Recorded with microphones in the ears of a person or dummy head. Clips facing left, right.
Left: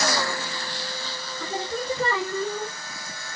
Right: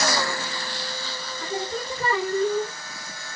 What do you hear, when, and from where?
1.4 s singing: 55° left (ahead or behind), 1.2 m